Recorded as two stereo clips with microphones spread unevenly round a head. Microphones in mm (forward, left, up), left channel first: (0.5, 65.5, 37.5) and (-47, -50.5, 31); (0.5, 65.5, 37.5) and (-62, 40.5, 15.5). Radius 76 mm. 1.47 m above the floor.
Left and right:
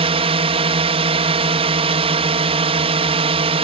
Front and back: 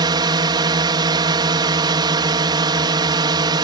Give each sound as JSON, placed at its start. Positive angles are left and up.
{"t": 0.0, "sound": "a drone", "azimuth_deg": -155}